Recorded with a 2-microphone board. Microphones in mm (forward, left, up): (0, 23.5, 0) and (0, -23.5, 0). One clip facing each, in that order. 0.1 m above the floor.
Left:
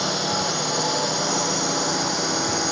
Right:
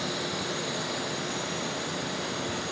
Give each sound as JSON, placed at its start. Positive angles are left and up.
{"t": 0.0, "sound": "a drone", "side_deg": 65}